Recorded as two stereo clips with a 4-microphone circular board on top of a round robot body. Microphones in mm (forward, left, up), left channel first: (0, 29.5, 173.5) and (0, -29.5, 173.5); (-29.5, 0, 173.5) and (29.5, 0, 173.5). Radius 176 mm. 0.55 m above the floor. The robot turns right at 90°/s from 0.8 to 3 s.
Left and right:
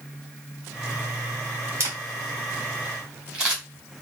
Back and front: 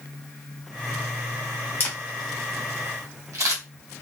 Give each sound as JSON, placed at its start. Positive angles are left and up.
{"t": 1.8, "sound": "a camera shutter", "azimuth_deg": -125, "distance_m": 1.5}